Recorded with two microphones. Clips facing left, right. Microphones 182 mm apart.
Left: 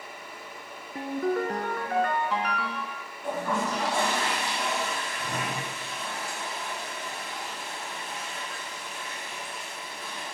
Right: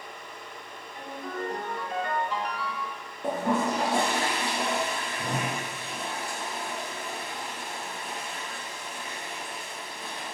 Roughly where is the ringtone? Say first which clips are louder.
Left 9 dB; left.